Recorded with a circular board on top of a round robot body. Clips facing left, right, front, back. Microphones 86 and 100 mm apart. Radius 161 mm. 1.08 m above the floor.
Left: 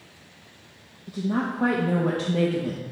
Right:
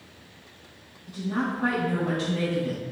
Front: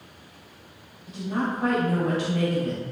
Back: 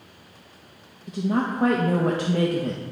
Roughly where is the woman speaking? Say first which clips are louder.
Left 2 dB, back 4 dB; behind left.